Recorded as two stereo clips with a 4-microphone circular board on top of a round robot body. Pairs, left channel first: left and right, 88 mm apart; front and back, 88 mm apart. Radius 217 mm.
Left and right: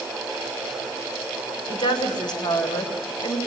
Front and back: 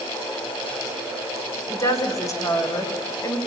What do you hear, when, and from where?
1.7 s a woman speaking: 55° left, 3.5 m